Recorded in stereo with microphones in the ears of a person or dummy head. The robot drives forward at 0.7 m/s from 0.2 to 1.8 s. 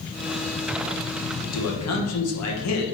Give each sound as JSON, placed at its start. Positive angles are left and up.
{"t": 1.5, "sound": "a man speaking", "side_deg": 75, "distance_m": 1.4}